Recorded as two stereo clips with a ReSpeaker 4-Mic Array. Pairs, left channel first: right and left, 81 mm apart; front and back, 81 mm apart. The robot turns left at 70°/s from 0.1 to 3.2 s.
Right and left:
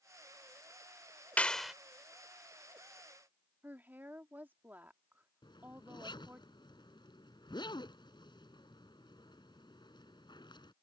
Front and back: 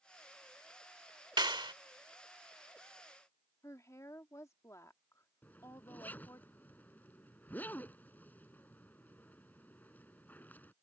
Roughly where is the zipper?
Right.